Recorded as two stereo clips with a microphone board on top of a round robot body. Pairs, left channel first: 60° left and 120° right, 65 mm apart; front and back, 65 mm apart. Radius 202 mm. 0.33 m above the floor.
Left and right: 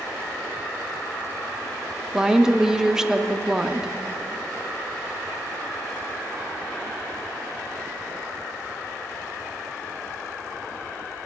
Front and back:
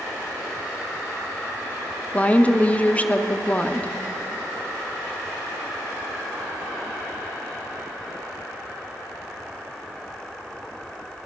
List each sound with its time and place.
2.1 s a woman speaking: 45° right, 0.9 m